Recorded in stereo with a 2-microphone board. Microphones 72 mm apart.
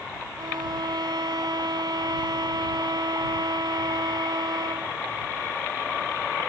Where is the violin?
75° right (ahead or behind).